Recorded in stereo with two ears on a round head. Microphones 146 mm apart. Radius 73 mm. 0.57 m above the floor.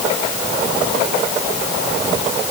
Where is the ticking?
No ticking in this recording.